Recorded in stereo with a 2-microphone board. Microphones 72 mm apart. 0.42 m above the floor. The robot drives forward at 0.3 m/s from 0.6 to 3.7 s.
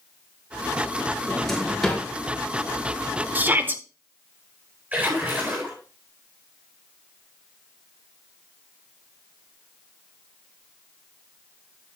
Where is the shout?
25° right (ahead or behind), 1.3 m.